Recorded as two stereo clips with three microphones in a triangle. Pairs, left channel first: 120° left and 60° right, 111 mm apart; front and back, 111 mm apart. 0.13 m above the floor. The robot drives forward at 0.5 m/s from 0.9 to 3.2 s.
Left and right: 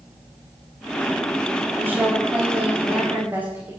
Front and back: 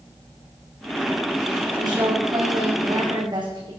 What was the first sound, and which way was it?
A woman speaking, 130° right.